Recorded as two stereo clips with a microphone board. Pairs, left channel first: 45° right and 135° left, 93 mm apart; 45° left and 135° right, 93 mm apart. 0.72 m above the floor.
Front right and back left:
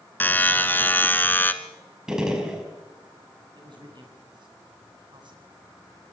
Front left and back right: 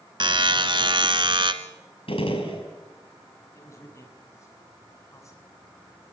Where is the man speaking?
100° left, 6 m.